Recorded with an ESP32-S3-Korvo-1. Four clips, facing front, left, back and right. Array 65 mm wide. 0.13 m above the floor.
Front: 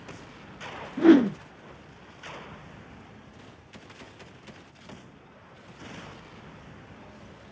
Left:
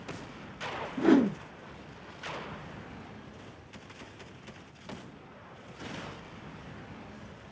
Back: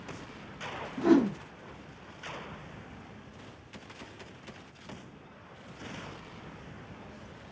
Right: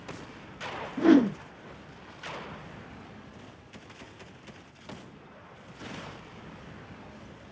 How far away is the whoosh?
About 0.5 m.